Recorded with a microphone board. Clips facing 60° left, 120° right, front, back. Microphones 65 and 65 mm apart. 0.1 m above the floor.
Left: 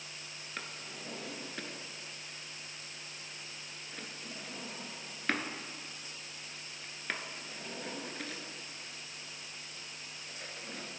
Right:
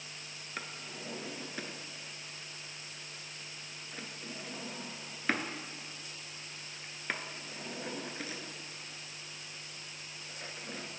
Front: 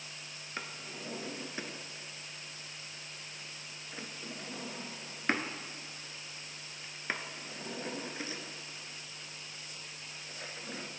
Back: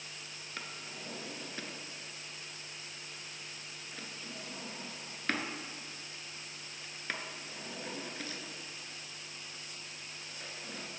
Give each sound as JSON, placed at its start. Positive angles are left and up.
{"t": 0.6, "sound": "a drawer", "azimuth_deg": -45, "distance_m": 0.7}